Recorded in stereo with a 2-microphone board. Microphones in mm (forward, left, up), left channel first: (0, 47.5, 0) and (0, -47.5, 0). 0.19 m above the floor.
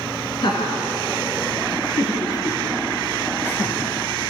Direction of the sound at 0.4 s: 55° left (ahead or behind).